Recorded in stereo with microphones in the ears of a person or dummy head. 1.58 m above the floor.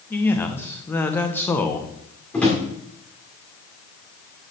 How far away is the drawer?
About 2 m.